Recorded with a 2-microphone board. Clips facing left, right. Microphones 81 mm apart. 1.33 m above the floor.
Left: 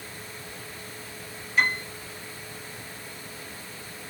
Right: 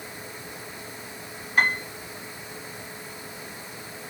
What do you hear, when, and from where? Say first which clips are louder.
1.6 s a piano: right 2 dB; 50° right (ahead or behind), 4 m